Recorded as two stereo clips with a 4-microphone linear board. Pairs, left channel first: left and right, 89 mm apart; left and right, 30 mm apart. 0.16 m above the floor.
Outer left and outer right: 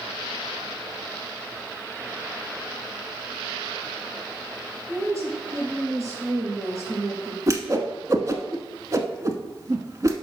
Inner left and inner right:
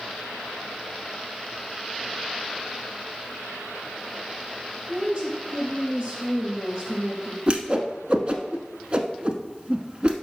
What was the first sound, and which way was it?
A woman speaking, 30° right (ahead or behind).